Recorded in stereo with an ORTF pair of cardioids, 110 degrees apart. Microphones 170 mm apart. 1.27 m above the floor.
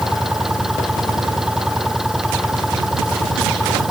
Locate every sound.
0.0 s an engine running: straight ahead